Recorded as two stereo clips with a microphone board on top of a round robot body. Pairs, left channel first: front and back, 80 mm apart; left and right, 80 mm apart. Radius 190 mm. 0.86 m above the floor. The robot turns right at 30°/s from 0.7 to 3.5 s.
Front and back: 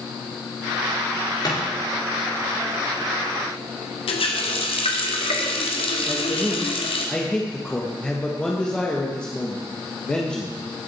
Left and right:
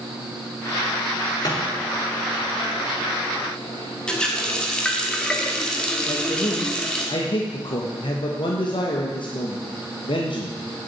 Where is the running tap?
10° left, 1.4 m.